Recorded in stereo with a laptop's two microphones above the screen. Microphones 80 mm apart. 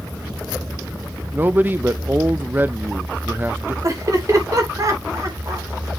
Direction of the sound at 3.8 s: 45° right (ahead or behind).